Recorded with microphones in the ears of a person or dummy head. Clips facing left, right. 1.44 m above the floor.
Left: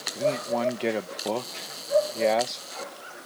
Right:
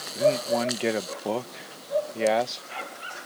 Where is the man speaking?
Centre (ahead or behind).